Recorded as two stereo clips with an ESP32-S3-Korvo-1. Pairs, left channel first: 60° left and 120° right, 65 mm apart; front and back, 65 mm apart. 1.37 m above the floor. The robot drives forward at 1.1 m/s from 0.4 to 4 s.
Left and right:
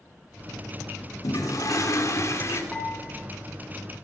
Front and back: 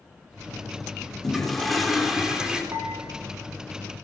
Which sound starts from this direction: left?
A toilet flushing, at 1.2 s.